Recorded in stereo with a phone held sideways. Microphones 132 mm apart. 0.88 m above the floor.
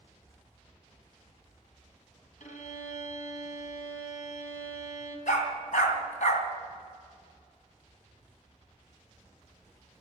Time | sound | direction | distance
2.4 | a violin | 70° left (ahead or behind) | 2.5 m
5.3 | a dog barking | 70° left (ahead or behind) | 2.5 m